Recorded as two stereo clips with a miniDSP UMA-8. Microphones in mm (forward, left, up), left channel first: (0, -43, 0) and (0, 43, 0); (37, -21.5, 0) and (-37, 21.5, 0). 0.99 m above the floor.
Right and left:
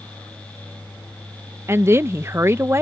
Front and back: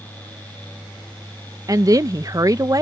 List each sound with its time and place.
1.7 s a woman speaking: 135° left